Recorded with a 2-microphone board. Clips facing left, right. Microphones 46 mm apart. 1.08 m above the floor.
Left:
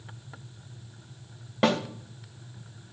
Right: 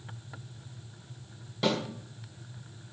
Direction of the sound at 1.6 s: 45° left (ahead or behind).